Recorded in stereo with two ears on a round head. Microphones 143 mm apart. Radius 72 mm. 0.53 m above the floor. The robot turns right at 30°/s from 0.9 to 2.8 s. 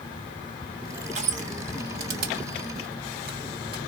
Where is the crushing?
40° right (ahead or behind), 1.0 m; by 3.8 s 60° right (ahead or behind), 1.0 m.